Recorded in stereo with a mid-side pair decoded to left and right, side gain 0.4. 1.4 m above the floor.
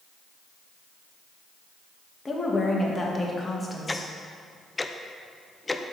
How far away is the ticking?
About 0.5 m.